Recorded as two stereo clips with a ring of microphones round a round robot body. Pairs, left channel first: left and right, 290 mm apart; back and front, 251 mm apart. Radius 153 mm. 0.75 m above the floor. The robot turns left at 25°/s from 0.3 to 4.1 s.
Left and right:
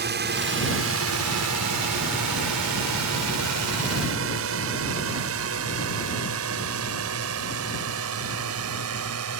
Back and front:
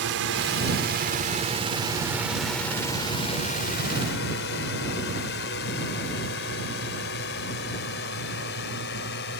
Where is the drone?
40° right; by 9.4 s 125° right.